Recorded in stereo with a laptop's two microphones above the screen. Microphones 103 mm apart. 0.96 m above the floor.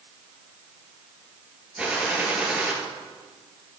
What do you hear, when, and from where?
1.8 s a gunshot: 10° right (ahead or behind), 5 m